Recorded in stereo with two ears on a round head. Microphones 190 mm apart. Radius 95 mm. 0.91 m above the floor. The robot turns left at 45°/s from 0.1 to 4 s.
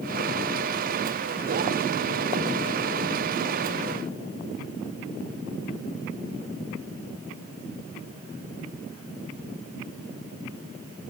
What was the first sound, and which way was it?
Only background noise.